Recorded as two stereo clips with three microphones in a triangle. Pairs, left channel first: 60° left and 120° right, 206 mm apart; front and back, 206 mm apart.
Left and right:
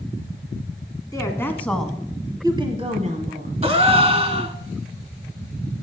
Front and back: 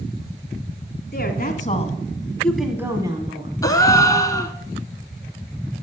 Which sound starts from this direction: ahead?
A woman speaking, at 1.1 s.